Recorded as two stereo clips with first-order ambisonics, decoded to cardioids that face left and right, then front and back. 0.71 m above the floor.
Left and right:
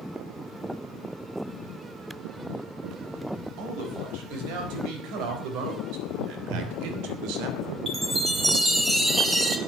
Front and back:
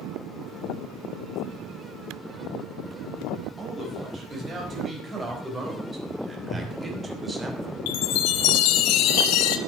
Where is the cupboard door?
105° right, 3.5 m.